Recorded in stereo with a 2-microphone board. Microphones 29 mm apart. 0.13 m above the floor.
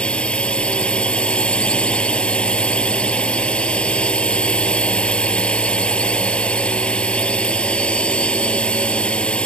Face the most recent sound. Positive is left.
turn(degrees=35)  # may be behind; listen again after turning